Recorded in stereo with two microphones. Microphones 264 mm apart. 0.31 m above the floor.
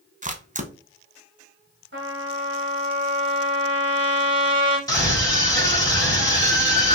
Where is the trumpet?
45° right (ahead or behind), 1.4 m.